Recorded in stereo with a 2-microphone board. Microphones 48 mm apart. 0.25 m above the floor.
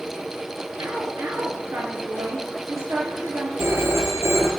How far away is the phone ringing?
About 3 m.